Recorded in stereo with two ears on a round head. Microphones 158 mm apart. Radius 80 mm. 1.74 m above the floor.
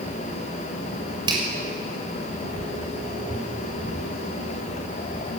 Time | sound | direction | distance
1.3 | a finger snap | 25° right (ahead or behind) | 6.5 m